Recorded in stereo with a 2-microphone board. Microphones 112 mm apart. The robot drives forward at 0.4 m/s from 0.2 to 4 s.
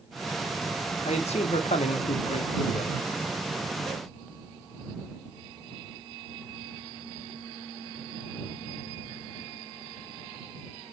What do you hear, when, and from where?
1.1 s a man speaking: 75° left (ahead or behind), 0.8 m; by 3.1 s 55° left (ahead or behind), 1.0 m